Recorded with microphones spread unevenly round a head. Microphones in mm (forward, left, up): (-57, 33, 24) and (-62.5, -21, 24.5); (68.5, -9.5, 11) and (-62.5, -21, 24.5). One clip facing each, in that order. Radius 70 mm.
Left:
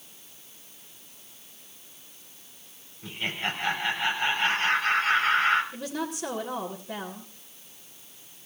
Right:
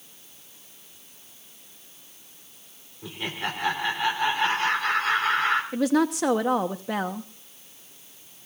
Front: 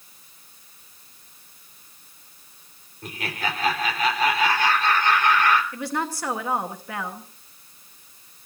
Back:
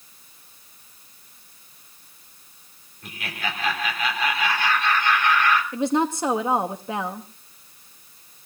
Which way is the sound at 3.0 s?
45° right.